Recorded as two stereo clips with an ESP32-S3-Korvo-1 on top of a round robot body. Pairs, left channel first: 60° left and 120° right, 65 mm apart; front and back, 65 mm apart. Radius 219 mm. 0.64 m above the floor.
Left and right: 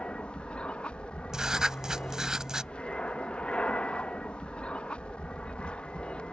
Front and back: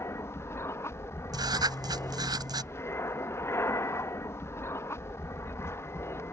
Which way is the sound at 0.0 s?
5° right.